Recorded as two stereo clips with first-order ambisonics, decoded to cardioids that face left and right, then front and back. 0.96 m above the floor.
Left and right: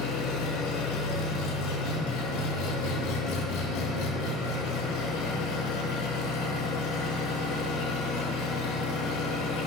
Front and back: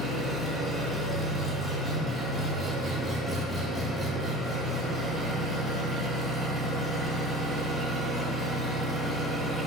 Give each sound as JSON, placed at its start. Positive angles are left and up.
{"t": 0.0, "sound": "an engine running", "azimuth_deg": 85, "distance_m": 3.0}